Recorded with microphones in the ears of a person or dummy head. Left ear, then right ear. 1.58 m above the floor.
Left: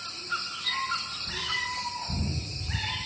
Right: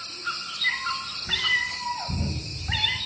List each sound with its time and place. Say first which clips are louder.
0.6 s a cat meowing: right 4 dB; 20° right (ahead or behind), 0.8 m